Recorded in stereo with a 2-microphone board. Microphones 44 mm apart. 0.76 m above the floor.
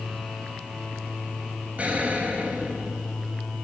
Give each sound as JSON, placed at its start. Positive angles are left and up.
{"t": 1.8, "sound": "an explosion", "side_deg": -30, "distance_m": 4.0}